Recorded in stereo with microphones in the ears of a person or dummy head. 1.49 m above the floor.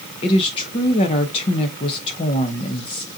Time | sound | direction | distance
0.2 | a woman speaking | 30° left (ahead or behind) | 0.8 m